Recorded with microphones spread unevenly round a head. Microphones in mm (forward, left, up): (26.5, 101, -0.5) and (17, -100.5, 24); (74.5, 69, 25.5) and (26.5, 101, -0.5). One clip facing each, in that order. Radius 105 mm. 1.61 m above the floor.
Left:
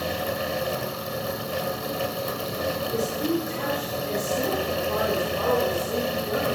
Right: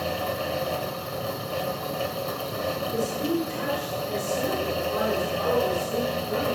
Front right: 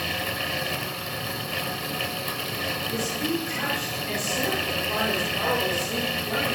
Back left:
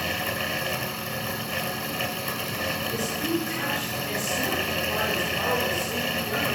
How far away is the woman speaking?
About 6 m.